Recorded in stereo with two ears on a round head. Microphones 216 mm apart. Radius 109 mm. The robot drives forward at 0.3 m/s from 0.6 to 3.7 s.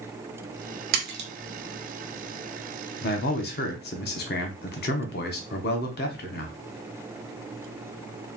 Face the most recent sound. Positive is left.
turn(degrees=40)  # may be behind; listen again after turning